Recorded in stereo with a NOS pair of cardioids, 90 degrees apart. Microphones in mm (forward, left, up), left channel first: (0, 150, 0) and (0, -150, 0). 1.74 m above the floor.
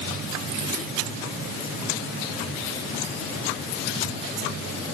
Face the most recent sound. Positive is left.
No sound to turn to.